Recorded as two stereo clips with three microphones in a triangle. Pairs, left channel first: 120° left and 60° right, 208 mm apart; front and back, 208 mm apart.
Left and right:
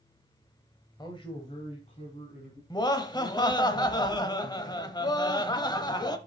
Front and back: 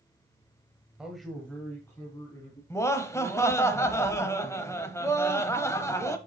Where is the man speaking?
105° left, 1.2 m; by 2.6 s 70° left, 2.5 m.